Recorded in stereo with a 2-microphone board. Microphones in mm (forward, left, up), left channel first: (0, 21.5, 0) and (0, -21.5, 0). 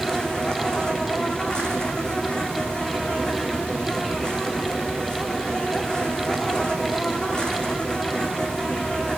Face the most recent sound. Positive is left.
turn(degrees=20)  # may be behind; listen again after turning